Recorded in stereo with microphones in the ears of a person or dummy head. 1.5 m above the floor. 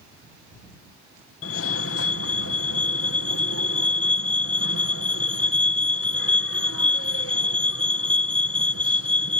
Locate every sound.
1.4 s a fire alarm: 70° left (ahead or behind)